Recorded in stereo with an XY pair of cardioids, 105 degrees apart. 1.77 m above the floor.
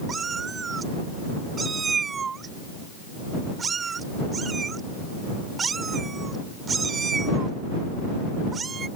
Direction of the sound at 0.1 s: 40° right.